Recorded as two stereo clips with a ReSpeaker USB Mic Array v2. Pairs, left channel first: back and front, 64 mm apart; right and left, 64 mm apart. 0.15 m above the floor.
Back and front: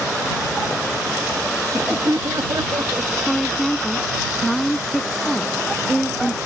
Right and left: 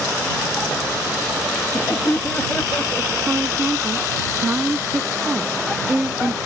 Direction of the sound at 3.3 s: 95° left.